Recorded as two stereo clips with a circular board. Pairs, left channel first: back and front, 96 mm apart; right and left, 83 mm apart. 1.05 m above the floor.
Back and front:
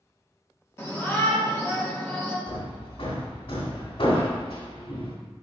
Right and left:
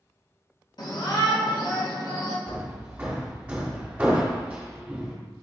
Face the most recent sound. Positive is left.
turn(degrees=165)